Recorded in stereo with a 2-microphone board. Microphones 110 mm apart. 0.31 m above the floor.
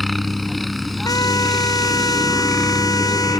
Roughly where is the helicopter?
Centre.